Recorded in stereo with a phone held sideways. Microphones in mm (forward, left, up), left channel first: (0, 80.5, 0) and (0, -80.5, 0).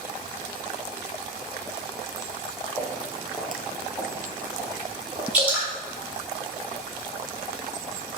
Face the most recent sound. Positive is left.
turn(degrees=-10)  # may be behind; listen again after turning